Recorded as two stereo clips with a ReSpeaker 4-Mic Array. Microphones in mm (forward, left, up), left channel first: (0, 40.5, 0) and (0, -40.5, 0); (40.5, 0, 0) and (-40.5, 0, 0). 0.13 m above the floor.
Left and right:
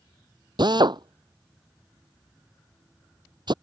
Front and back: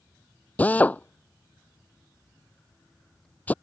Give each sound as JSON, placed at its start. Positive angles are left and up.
{"t": 0.6, "sound": "a drill", "azimuth_deg": -70}